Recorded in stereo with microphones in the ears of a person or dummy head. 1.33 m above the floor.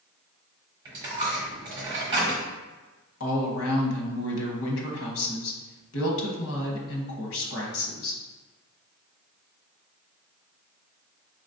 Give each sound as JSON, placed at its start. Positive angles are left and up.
{"t": 0.8, "sound": "a dropped coin", "side_deg": -25, "distance_m": 1.1}
{"t": 3.2, "sound": "a woman speaking", "side_deg": 70, "distance_m": 1.1}